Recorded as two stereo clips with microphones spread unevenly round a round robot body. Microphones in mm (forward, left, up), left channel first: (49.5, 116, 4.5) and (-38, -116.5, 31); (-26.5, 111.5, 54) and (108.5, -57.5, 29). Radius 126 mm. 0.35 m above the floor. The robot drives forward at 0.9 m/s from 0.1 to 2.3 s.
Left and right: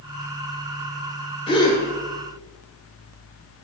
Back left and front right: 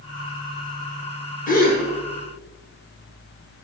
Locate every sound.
1.5 s a gasp: 110° left, 1.4 m; by 1.8 s 130° left, 1.5 m